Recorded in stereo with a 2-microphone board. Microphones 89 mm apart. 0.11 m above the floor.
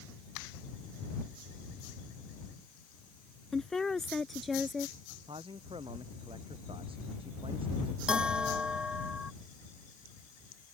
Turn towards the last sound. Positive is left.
turn(degrees=-10)  # may be behind; listen again after turning